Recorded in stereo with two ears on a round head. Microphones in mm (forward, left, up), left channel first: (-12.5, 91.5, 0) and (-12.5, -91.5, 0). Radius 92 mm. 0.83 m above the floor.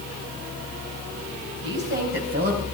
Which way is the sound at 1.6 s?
55° right (ahead or behind).